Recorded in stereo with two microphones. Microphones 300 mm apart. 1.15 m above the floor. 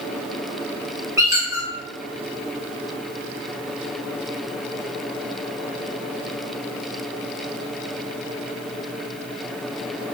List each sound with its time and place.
1.2 s a squeak: 10° right (ahead or behind), 1.1 m